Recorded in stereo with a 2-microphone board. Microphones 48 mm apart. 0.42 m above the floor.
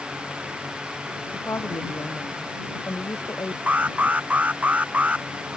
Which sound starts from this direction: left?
A woman speaking, at 1.3 s.